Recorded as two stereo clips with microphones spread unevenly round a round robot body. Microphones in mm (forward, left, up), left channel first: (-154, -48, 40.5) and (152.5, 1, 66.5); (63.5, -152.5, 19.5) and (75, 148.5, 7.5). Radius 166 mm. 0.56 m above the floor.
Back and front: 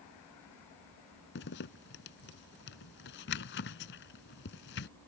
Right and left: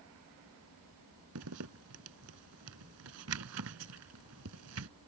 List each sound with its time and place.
1.4 s a zipper: 135° left